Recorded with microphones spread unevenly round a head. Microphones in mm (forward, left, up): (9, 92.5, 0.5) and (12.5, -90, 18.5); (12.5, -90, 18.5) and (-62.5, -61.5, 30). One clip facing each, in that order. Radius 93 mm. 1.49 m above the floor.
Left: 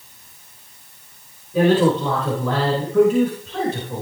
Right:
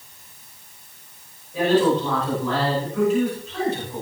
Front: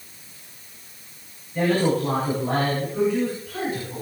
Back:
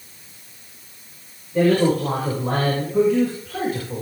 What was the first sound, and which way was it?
A man speaking, 110° left.